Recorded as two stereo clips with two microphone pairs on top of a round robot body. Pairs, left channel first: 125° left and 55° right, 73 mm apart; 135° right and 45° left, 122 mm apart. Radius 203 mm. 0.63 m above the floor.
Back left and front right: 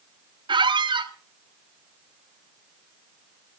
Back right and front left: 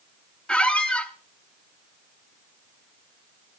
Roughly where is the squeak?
Ahead right.